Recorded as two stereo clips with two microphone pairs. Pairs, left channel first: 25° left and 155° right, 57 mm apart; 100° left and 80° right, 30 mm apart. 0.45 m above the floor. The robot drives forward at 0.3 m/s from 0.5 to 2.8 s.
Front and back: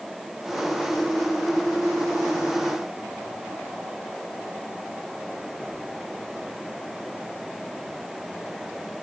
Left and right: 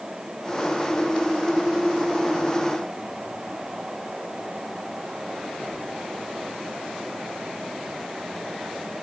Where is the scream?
No scream in this recording.